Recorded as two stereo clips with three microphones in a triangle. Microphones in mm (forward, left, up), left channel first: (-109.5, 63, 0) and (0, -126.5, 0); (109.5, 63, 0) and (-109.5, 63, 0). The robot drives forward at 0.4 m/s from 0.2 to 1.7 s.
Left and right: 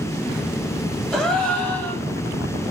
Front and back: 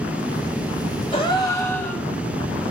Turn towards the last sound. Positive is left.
turn(degrees=65)